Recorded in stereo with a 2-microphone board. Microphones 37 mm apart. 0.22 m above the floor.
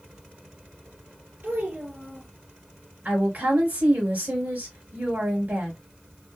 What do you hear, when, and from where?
1.4 s a child speaking: 65° right (ahead or behind), 2.5 m
3.0 s a woman speaking: 50° right (ahead or behind), 3 m